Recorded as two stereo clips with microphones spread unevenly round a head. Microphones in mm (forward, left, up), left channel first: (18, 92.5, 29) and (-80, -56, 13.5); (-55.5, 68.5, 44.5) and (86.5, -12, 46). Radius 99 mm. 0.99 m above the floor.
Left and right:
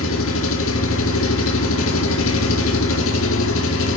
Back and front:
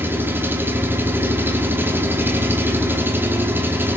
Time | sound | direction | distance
0.0 | an engine running | 50° left | 2.5 m